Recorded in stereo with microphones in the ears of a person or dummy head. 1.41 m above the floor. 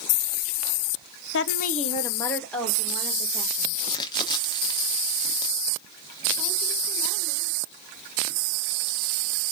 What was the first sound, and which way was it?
A woman speaking, 70° left (ahead or behind).